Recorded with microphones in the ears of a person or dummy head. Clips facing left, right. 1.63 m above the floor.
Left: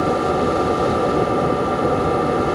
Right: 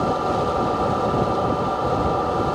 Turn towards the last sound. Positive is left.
turn(degrees=40)  # may be behind; listen again after turning